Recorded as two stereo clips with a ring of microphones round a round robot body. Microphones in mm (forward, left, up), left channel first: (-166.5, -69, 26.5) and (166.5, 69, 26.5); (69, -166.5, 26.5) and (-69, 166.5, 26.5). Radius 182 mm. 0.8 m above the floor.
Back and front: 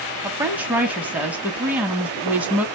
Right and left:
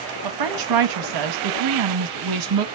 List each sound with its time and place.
0.2 s a woman speaking: 110° left, 0.9 m